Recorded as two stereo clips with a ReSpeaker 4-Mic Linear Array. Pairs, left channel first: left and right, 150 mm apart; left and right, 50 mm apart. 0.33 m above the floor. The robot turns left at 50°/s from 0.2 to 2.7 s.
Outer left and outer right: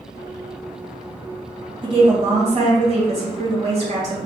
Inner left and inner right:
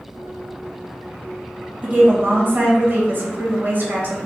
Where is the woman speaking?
50° right, 1.8 m; by 4.2 s 95° right, 1.8 m.